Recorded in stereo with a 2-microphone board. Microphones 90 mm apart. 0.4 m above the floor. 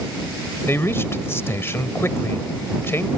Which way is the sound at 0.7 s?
30° left (ahead or behind).